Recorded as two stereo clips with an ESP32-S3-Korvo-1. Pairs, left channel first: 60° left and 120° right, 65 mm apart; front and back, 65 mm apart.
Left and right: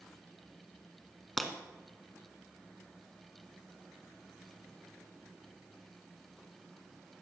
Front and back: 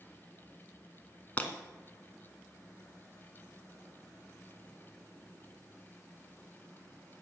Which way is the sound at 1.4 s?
20° right.